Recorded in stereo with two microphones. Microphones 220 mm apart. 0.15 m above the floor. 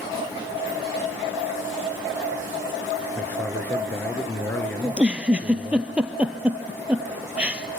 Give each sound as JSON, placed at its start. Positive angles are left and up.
{"t": 3.2, "sound": "a man speaking", "side_deg": 10, "distance_m": 2.5}
{"t": 4.8, "sound": "a giggle", "side_deg": -5, "distance_m": 1.5}